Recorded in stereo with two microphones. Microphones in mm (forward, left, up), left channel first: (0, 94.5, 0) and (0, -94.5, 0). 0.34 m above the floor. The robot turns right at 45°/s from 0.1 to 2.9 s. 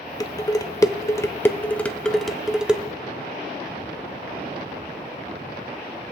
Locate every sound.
0.2 s dishes clattering: 20° left (ahead or behind), 0.5 m; by 2.8 s 5° right (ahead or behind), 0.5 m